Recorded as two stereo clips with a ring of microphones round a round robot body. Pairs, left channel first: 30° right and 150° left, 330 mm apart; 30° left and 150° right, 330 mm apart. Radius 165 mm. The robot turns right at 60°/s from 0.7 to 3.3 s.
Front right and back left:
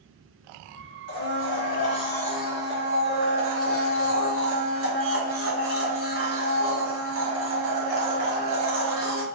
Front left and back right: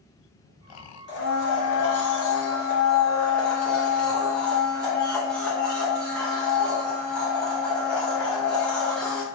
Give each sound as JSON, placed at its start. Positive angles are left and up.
{"t": 1.1, "sound": "a blender", "azimuth_deg": -15, "distance_m": 0.8}